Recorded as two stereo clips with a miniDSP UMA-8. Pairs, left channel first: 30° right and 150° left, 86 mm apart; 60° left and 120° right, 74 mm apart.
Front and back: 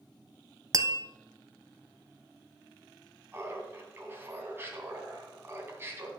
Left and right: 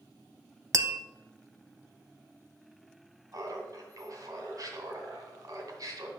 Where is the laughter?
150° right, 2.5 m.